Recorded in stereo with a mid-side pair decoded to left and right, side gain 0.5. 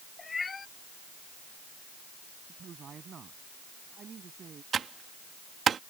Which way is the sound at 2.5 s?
45° right.